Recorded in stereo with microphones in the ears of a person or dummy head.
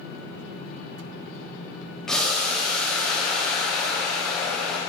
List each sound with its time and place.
2.1 s boiling: 5° left (ahead or behind), 0.7 m